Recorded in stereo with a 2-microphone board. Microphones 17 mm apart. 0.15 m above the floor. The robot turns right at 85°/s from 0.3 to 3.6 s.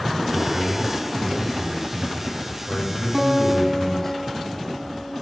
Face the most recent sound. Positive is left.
turn(degrees=-5)  # may be behind; listen again after turning